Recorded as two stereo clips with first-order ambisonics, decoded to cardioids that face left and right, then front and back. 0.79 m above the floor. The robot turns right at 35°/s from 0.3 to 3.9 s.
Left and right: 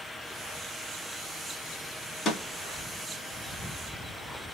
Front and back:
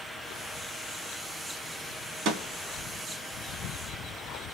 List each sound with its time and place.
2.2 s a snare drum: 150° left, 1.9 m; by 2.4 s 160° left, 1.9 m